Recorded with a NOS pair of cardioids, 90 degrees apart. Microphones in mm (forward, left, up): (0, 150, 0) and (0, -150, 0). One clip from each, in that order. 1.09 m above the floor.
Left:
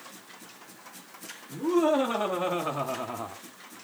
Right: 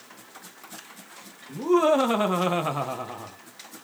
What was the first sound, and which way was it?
Laughter, 55° right.